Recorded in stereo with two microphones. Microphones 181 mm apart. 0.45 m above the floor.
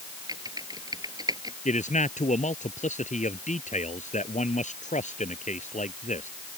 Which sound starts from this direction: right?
Typing on a keyboard, at 0.3 s.